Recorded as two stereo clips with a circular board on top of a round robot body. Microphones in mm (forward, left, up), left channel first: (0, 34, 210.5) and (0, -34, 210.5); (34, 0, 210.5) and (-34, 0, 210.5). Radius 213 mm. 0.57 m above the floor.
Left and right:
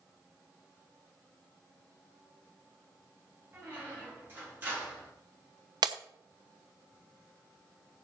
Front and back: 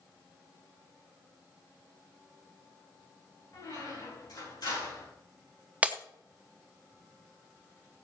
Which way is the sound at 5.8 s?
110° right.